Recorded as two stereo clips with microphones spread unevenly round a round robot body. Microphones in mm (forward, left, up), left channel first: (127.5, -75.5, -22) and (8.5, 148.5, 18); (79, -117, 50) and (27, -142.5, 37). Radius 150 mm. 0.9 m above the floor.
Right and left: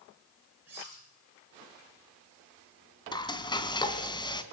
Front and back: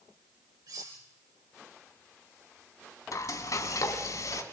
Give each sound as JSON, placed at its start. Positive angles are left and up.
{"t": 0.7, "sound": "cutlery clinking", "azimuth_deg": -160, "distance_m": 8.0}
{"t": 3.1, "sound": "frying", "azimuth_deg": 15, "distance_m": 2.0}